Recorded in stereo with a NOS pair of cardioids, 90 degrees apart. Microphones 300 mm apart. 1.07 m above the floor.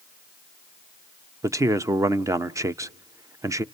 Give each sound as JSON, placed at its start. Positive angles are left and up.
{"t": 1.4, "sound": "a man speaking", "azimuth_deg": -10, "distance_m": 0.8}